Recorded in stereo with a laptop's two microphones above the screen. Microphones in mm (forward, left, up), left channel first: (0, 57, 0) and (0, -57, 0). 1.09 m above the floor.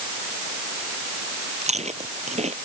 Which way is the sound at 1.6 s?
80° right.